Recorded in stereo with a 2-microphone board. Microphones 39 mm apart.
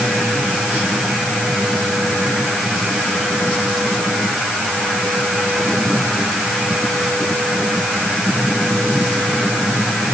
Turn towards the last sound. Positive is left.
No sound to turn to.